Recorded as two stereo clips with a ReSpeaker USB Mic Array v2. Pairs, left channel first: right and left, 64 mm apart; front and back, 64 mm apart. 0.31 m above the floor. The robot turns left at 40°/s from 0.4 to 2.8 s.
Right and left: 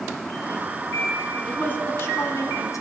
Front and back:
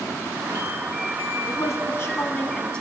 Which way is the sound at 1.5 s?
25° right.